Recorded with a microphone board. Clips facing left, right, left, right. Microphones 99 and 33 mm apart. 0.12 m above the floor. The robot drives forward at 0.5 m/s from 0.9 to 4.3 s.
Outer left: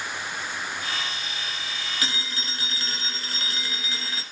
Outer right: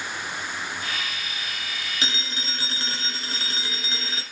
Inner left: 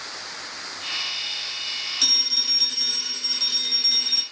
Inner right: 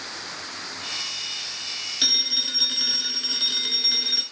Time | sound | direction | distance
2.0 | a phone ringing | 25° right (ahead or behind) | 0.9 m